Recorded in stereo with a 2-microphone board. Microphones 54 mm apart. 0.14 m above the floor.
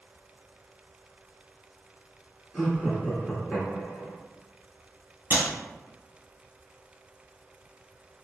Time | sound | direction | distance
2.5 | laughter | 5° left (ahead or behind) | 1.6 m
5.3 | a clap | 30° right (ahead or behind) | 1.5 m